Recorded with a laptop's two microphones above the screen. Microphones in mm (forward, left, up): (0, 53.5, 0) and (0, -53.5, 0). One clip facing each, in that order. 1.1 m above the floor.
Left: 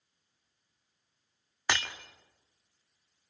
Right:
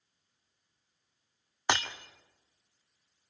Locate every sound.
1.7 s breaking glass: 20° right (ahead or behind), 1.3 m